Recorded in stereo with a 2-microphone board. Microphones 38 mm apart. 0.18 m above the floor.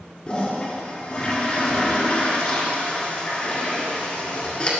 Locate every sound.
0.3 s a toilet flushing: 25° left (ahead or behind), 1.7 m